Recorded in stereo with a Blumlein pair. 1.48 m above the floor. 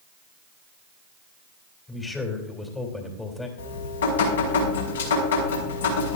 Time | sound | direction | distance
1.9 | a man speaking | 10° left | 3 m
3.6 | dripping | 65° left | 5.5 m